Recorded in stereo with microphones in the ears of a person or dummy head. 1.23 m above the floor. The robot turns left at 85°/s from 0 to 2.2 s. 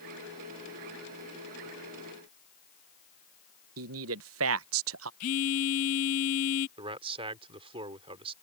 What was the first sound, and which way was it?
A man speaking, 75° right (ahead or behind).